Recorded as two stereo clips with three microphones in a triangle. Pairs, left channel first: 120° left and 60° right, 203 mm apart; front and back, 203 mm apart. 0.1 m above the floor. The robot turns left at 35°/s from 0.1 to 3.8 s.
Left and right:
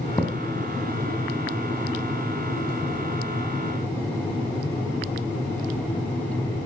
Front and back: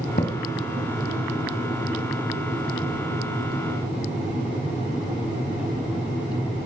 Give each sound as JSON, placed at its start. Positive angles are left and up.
{"t": 0.2, "sound": "a thud", "azimuth_deg": 40, "distance_m": 2.0}